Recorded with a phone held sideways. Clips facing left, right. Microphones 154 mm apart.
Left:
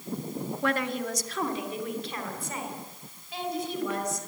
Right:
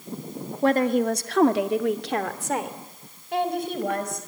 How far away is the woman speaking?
About 1.7 m.